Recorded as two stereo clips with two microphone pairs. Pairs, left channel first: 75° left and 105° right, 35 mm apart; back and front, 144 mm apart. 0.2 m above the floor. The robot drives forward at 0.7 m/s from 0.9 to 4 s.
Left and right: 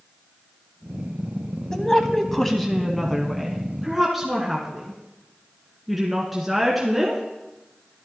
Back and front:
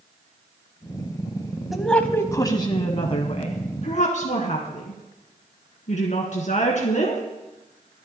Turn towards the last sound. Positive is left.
turn(degrees=170)